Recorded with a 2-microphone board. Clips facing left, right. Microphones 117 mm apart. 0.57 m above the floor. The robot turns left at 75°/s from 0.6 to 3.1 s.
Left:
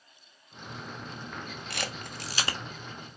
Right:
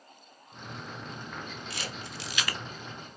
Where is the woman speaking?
I don't hear a woman speaking.